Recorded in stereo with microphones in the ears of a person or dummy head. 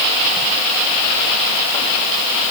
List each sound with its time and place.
Only background noise.